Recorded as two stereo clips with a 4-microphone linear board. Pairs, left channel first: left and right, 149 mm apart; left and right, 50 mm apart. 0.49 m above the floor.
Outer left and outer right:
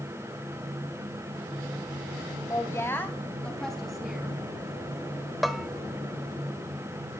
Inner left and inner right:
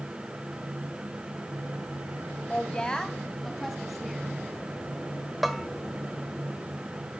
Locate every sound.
2.5 s a woman speaking: 25° left (ahead or behind), 3 m; by 4.3 s 5° right (ahead or behind), 4.5 m
5.4 s a bell: centre (ahead or behind), 1.4 m